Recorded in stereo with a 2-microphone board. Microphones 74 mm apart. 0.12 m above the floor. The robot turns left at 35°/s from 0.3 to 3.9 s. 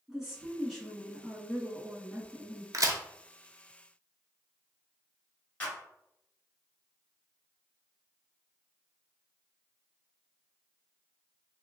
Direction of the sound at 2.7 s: 55° right (ahead or behind).